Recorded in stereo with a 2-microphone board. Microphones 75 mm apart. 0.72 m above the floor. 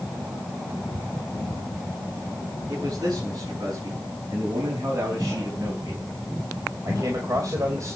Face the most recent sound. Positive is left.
turn(degrees=-45)  # may be behind; listen again after turning